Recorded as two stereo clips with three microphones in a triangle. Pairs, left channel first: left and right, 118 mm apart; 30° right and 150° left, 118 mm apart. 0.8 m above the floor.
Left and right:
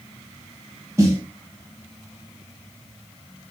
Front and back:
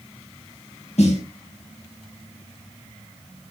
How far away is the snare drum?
About 1.1 m.